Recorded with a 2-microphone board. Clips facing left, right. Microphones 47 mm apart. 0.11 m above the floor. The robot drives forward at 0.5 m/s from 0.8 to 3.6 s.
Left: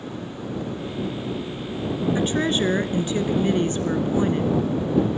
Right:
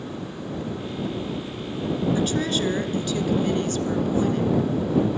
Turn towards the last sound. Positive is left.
turn(degrees=25)  # may be behind; listen again after turning